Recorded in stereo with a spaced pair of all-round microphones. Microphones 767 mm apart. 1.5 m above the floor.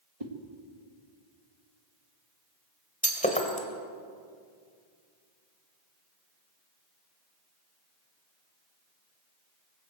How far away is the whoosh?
About 2.5 m.